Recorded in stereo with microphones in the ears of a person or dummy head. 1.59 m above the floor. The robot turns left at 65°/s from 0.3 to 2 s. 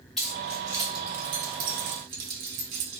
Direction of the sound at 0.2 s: 5° left (ahead or behind).